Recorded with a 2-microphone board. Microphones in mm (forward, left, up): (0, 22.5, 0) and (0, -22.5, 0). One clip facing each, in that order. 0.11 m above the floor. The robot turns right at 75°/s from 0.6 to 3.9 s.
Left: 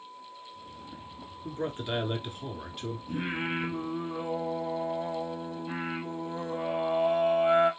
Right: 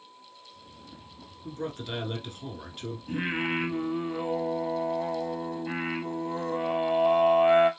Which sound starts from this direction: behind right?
Singing, at 3.1 s.